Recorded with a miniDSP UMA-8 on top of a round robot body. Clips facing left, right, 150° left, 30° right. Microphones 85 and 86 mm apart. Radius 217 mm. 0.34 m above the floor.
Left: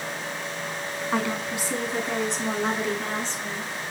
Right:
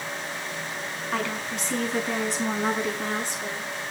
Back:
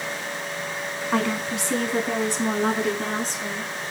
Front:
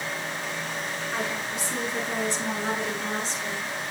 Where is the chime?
No chime in this recording.